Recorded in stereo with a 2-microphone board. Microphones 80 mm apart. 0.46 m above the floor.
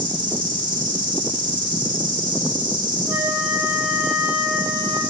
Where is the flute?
10° right (ahead or behind), 2.5 m.